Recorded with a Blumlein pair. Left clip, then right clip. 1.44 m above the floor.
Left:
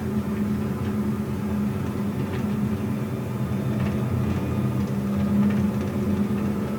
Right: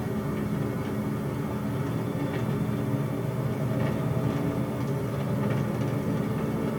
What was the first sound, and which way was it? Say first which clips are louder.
An engine running: left 3 dB; 30° left.